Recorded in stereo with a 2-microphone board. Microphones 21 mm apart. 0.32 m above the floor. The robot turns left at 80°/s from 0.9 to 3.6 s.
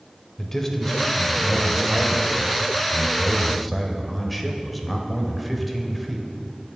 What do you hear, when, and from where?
0.4 s a man speaking: 15° left (ahead or behind), 0.9 m; by 6.3 s centre (ahead or behind), 0.9 m